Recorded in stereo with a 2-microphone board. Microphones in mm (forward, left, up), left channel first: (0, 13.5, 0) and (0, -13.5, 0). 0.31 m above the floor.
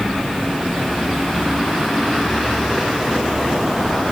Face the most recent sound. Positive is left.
No sound to turn to.